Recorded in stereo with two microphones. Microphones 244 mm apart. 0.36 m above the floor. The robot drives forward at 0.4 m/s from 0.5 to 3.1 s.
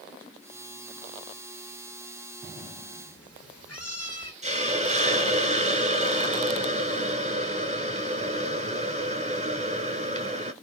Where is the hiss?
25° right (ahead or behind), 1.4 m.